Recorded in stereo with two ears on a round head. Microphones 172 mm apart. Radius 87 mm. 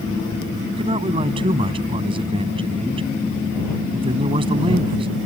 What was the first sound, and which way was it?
A man speaking, 30° right (ahead or behind).